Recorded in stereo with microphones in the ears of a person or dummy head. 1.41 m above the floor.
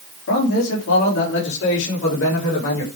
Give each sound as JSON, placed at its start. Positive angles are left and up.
{"t": 0.3, "sound": "a man speaking", "side_deg": 60, "distance_m": 3.5}